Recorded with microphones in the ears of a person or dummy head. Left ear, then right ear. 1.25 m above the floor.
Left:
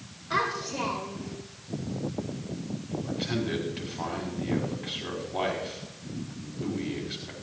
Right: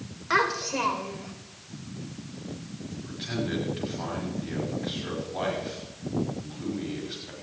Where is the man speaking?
10° left (ahead or behind), 4.5 m.